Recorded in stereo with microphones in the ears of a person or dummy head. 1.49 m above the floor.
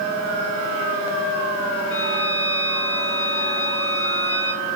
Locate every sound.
1.9 s a violin: 70° left (ahead or behind), 4.5 m